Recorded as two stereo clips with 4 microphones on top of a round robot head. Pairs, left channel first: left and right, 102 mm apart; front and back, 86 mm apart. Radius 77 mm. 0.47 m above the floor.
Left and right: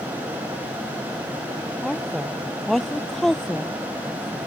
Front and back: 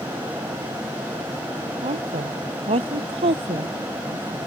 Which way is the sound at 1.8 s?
175° left.